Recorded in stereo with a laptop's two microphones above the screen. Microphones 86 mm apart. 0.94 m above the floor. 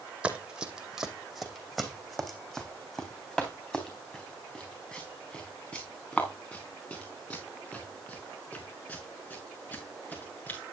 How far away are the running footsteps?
About 2 m.